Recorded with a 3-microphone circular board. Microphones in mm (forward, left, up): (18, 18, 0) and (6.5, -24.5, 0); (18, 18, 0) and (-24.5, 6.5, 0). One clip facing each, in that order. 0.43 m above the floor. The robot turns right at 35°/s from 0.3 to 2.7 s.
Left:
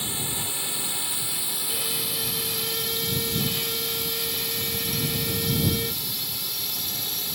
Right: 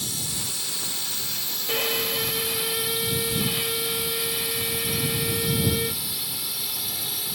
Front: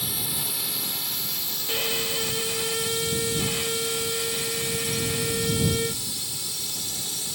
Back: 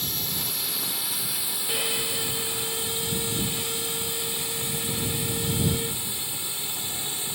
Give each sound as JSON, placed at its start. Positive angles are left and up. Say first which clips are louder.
{"t": 0.0, "sound": "a drone", "louder": "left 2 dB, even", "azimuth_deg": 90}
{"t": 1.7, "sound": "a violin", "louder": "right 8 dB, front 2 dB", "azimuth_deg": -70}